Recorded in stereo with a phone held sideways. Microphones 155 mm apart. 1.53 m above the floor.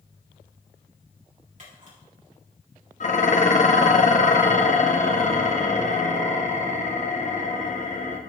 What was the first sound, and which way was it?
A camera shutter, 50° right (ahead or behind).